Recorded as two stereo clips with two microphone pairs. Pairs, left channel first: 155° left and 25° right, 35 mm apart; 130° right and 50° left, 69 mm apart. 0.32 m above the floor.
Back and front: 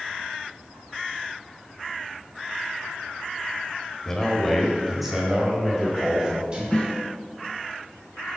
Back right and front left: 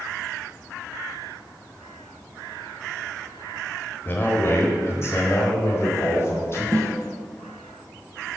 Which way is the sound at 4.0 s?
140° right.